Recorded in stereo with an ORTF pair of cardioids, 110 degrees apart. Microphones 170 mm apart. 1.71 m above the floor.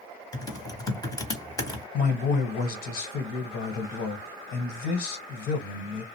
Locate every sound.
0.3 s typing on a keyboard: 20° left, 0.9 m
1.9 s a man speaking: 70° left, 1.2 m